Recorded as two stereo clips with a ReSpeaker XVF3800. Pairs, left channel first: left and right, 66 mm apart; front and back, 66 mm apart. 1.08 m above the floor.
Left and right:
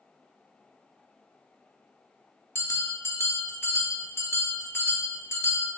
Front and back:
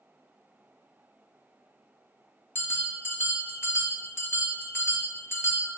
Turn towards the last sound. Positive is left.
turn(degrees=45)